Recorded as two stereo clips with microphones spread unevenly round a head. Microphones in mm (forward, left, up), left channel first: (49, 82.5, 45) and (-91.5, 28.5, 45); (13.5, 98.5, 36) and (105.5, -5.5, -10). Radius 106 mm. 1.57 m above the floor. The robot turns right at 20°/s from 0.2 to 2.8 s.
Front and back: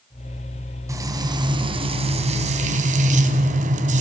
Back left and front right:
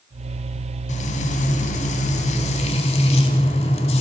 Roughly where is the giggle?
I don't hear a giggle.